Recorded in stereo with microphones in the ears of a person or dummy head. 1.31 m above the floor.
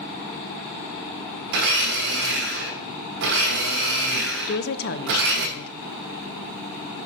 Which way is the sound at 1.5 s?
50° right (ahead or behind).